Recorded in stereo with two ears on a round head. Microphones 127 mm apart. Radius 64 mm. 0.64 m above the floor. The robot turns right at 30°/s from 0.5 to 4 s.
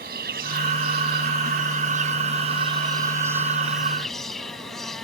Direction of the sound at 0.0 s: 100° right.